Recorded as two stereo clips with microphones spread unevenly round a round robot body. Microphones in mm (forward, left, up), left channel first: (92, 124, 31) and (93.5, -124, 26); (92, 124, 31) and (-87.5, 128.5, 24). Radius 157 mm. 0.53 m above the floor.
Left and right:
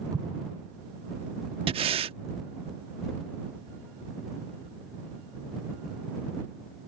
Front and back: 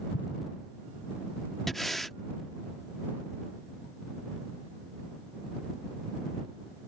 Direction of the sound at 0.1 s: 15° right.